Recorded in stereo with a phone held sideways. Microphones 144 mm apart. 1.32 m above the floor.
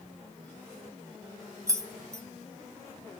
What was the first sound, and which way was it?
Keys jangling, 20° right (ahead or behind).